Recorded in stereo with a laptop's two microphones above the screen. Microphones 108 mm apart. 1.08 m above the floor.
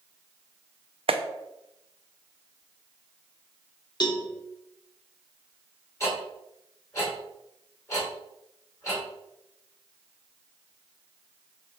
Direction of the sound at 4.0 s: 40° left (ahead or behind).